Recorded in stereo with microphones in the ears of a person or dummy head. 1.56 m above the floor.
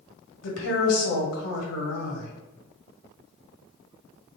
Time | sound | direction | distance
0.4 | a woman speaking | 80° left | 1.6 m